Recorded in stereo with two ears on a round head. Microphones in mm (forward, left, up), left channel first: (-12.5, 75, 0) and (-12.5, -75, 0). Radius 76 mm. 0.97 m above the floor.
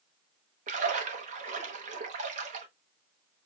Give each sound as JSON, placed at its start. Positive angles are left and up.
{"t": 0.7, "sound": "a splash", "side_deg": -45, "distance_m": 1.1}